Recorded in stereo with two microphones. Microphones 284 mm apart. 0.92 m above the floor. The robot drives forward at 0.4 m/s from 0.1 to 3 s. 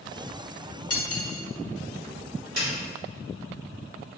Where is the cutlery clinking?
60° left (ahead or behind), 0.8 m; by 1.4 s 50° left (ahead or behind), 0.9 m.